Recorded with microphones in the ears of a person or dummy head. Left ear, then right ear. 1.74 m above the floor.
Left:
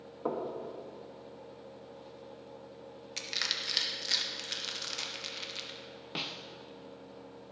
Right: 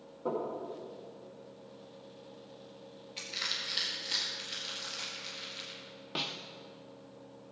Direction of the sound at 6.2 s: 5° left (ahead or behind).